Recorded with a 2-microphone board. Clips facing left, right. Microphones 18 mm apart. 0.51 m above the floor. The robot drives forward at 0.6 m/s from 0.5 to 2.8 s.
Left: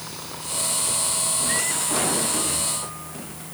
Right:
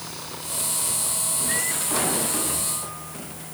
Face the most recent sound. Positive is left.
No sound to turn to.